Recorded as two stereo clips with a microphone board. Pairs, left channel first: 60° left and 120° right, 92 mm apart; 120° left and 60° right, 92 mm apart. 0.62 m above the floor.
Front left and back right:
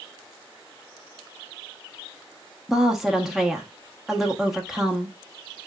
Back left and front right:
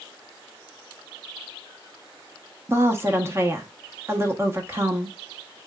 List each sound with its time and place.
2.7 s a woman speaking: 40° right, 0.9 m